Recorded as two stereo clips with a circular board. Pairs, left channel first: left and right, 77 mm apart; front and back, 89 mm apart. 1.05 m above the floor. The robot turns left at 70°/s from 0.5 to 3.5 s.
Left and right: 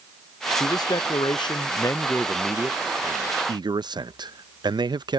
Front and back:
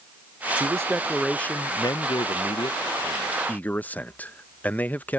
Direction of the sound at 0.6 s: 135° left.